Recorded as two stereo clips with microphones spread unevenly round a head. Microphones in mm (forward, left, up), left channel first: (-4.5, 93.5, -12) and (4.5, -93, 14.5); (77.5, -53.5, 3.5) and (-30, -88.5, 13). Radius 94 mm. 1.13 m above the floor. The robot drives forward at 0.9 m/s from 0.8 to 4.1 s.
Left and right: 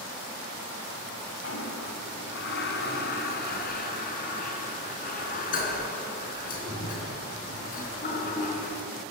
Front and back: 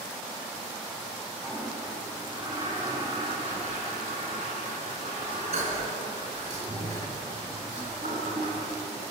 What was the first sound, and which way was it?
A toilet flushing, 115° left.